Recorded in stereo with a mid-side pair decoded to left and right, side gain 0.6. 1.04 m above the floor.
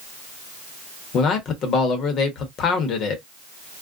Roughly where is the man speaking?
Ahead left.